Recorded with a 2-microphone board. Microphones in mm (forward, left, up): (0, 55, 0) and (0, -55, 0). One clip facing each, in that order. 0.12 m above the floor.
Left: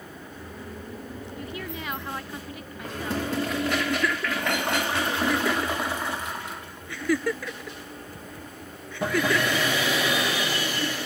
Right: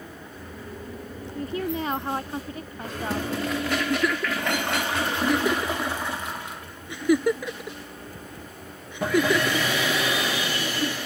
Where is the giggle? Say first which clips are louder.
Right 2 dB; 20° right (ahead or behind).